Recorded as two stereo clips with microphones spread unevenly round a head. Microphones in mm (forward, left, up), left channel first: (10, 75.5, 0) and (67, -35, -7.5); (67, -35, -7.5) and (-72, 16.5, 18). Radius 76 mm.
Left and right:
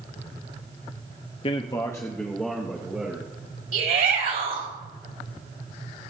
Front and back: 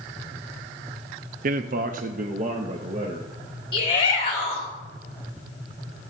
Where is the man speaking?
155° left, 0.6 m; by 3.3 s 145° right, 1.5 m.